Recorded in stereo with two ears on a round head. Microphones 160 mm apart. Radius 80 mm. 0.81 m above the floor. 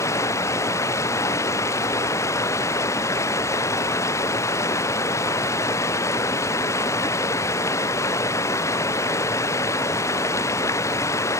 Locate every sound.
0.0 s running water: 15° left (ahead or behind)